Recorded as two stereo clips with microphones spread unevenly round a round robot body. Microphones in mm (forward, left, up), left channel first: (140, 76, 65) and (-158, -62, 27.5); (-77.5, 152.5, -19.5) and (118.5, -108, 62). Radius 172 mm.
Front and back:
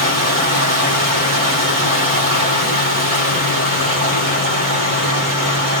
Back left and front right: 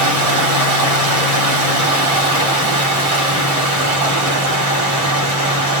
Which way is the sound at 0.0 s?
105° right.